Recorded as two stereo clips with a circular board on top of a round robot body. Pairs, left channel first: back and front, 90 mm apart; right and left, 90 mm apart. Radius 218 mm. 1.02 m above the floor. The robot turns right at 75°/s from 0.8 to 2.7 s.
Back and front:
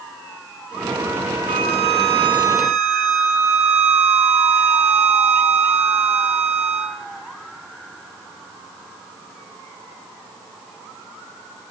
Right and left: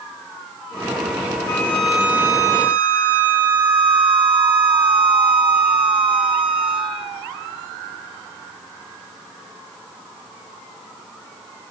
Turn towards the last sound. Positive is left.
turn(degrees=70)